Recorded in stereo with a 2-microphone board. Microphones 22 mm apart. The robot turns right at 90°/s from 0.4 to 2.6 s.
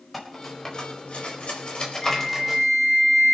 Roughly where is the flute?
Behind left.